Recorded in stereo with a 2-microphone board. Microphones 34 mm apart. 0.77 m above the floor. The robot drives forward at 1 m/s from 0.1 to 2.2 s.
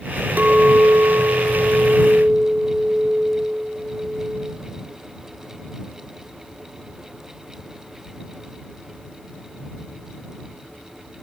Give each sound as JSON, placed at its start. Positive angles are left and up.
{"t": 0.4, "sound": "a clink", "side_deg": -55, "distance_m": 1.5}